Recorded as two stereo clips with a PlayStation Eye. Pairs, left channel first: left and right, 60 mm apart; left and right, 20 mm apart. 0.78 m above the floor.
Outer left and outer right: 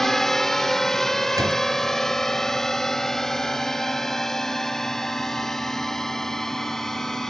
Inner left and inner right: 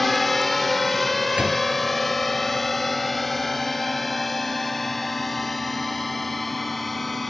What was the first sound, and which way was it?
A drone, 5° left (ahead or behind).